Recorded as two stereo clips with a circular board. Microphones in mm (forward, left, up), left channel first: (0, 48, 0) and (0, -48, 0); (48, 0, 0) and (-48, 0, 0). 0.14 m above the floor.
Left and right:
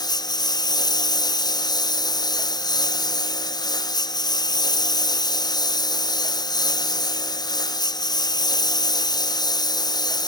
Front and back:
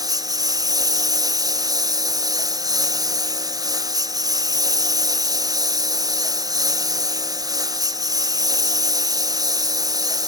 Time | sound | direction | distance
0.0 | a lawn mower | 130° left | ?